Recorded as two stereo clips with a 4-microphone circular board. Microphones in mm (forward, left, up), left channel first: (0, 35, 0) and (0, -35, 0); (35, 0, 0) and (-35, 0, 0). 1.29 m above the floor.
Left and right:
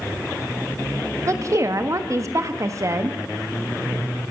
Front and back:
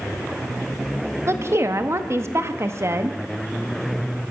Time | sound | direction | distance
1.3 | a woman speaking | 130° right | 1.7 m